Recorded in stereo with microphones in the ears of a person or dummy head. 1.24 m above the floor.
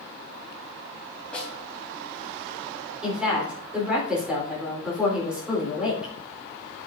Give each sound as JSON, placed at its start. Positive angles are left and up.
{"t": 1.3, "sound": "a snare drum", "side_deg": 5, "distance_m": 3.5}
{"t": 3.0, "sound": "a woman speaking", "side_deg": -5, "distance_m": 3.5}